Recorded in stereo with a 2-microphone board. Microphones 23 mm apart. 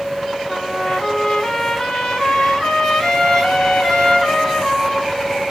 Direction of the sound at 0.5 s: 25° left (ahead or behind).